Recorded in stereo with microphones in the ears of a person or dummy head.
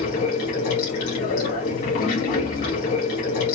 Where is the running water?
30° left (ahead or behind), 1.2 m.